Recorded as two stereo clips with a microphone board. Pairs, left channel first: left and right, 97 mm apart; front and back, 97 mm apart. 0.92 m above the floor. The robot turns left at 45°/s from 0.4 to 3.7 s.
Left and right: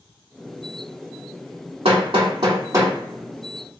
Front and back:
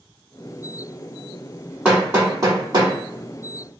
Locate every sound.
1.9 s hammering: 105° right, 1.2 m; by 3.0 s 155° right, 1.2 m